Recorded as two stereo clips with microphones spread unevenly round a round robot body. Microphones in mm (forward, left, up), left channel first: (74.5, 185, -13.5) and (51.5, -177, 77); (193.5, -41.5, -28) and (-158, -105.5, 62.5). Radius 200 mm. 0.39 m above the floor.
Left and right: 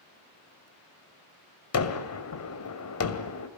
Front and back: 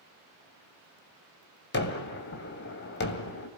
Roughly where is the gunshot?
Ahead left.